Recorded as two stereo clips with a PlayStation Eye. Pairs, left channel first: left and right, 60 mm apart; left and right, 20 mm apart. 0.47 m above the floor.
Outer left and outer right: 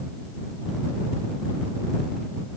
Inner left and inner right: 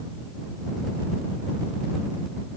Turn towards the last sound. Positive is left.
No sound to turn to.